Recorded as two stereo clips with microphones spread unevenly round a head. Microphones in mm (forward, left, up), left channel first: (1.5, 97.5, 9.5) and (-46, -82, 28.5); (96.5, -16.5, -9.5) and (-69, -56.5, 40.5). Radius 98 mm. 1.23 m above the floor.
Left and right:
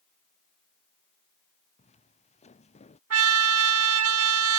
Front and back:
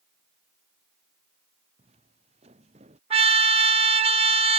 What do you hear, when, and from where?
1.8 s footsteps: 130° left; by 3.0 s 135° left
3.1 s a trumpet: 110° right